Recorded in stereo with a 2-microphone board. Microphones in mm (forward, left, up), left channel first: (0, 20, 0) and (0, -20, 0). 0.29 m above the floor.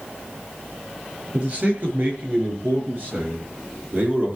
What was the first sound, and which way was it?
A man speaking, 30° right (ahead or behind).